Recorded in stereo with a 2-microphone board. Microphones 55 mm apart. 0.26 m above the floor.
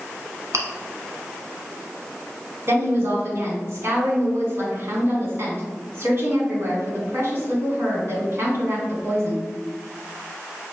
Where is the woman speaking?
50° right (ahead or behind), 2.0 m.